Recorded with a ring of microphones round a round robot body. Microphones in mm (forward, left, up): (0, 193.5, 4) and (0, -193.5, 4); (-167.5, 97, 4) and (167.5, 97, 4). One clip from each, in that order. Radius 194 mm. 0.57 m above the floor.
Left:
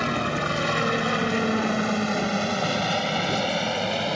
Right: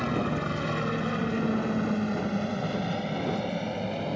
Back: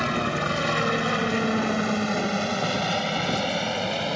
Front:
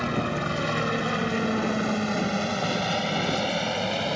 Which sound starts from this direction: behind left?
A helicopter, at 0.0 s.